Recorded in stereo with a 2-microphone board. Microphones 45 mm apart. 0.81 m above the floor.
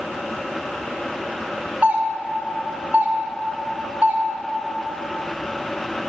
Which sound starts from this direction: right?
A doorbell, at 1.8 s.